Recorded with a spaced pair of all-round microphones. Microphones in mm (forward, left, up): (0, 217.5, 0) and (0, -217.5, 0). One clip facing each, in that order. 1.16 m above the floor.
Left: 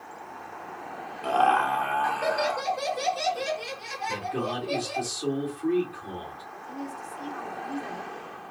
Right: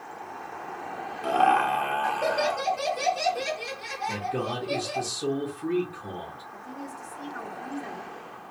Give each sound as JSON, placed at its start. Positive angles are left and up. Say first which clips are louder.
{"t": 1.2, "sound": "laughter", "louder": "right 1 dB", "side_deg": -35, "distance_m": 0.8}
{"t": 4.1, "sound": "a man speaking", "louder": "even", "side_deg": -65, "distance_m": 1.5}
{"t": 6.5, "sound": "a woman speaking", "louder": "left 3 dB", "side_deg": -65, "distance_m": 2.0}